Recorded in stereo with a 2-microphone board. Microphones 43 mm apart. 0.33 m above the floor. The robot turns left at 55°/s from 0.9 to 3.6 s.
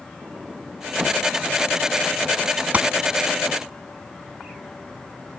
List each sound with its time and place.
0.2 s a sliding door: 30° right (ahead or behind); by 1.2 s 10° right (ahead or behind)
2.7 s a gunshot: 35° right (ahead or behind); by 2.9 s 40° right (ahead or behind)